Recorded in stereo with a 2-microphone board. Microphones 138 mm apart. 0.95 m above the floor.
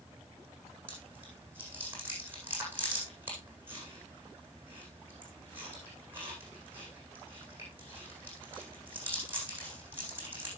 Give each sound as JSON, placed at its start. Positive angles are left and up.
{"t": 0.9, "sound": "chewing", "side_deg": -15, "distance_m": 9.0}